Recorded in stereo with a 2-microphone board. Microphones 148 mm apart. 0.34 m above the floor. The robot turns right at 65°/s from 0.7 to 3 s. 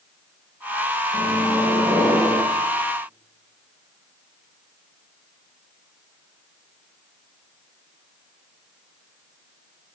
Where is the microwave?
60° right, 4 m; by 2.4 s 25° left, 4 m.